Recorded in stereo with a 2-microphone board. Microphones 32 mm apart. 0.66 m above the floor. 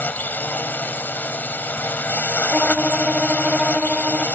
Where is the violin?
5° right (ahead or behind).